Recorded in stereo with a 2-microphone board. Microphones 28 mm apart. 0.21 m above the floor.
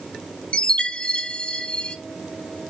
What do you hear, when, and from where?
0.5 s a chime: 40° left (ahead or behind), 0.9 m